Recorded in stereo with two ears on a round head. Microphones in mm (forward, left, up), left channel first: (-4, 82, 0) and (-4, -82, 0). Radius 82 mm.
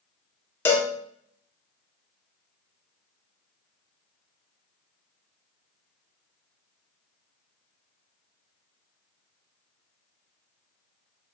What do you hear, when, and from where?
0.7 s a cowbell: 10° left (ahead or behind), 0.8 m